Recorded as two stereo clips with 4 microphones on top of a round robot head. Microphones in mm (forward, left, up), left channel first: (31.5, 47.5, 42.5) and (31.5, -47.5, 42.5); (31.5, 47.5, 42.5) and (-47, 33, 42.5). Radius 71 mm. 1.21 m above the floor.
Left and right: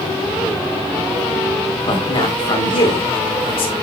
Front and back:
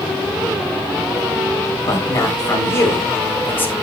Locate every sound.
1.9 s a man speaking: 60° left, 4 m; by 3.7 s 75° left, 4 m